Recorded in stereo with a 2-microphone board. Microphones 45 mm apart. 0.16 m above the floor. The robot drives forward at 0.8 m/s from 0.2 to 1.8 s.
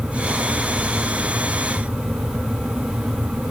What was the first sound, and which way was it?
Only background noise.